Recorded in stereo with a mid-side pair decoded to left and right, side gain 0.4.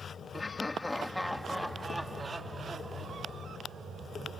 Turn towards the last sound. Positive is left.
turn(degrees=-35)